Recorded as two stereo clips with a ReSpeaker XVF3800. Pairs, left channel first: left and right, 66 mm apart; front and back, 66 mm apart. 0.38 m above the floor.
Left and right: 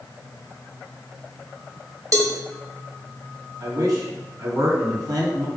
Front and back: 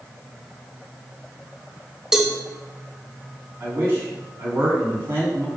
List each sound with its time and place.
2.1 s a cowbell: 100° right, 1.1 m
3.6 s a man speaking: 125° right, 3 m